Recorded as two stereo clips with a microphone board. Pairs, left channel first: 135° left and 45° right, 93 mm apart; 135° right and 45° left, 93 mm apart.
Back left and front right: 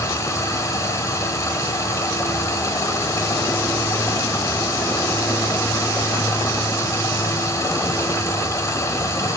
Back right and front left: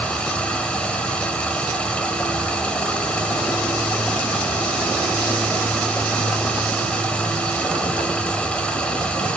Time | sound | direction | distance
0.0 | running water | 155° left | 1.3 m